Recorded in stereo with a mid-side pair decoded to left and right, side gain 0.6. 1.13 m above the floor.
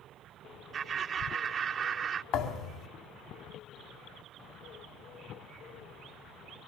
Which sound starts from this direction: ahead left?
A thud, at 2.3 s.